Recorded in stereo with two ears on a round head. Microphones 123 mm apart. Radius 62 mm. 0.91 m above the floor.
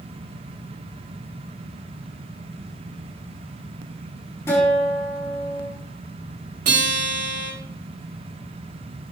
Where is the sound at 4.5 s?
20° left (ahead or behind), 5 m.